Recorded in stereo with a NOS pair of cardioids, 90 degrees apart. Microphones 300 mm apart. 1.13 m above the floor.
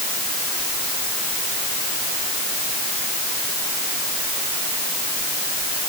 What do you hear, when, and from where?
Only background noise.